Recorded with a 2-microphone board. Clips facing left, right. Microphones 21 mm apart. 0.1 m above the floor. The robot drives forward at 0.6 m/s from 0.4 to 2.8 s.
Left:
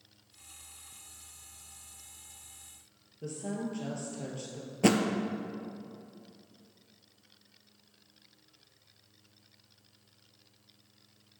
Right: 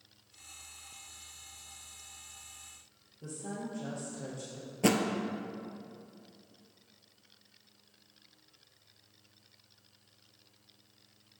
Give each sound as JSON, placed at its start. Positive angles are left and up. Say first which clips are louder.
{"t": 3.2, "sound": "a woman speaking", "louder": "left 4 dB", "side_deg": 35, "distance_m": 1.7}
{"t": 4.8, "sound": "a thud", "louder": "left 2 dB", "side_deg": 5, "distance_m": 0.5}